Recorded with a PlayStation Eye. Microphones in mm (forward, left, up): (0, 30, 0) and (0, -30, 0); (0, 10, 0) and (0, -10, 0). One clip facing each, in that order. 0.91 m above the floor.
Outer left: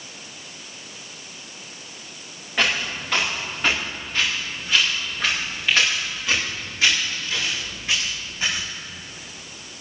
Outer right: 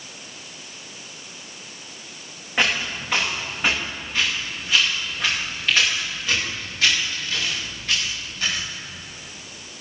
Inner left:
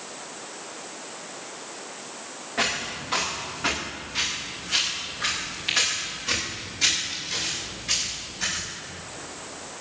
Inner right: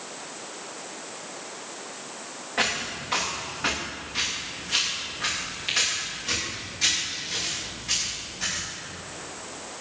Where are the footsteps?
15° right (ahead or behind), 6 m; by 8.7 s 15° left (ahead or behind), 11 m.